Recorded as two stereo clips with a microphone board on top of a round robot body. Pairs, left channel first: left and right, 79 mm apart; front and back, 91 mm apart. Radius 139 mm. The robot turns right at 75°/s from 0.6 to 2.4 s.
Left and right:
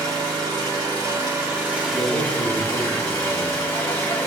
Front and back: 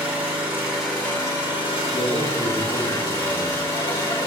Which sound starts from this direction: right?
An engine running, at 0.0 s.